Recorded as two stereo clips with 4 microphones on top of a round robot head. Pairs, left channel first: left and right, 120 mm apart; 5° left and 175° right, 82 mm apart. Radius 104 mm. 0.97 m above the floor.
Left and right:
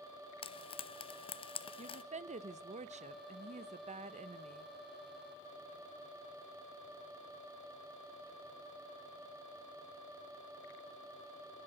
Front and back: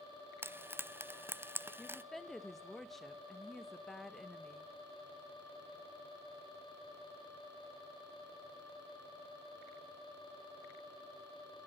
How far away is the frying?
About 0.7 m.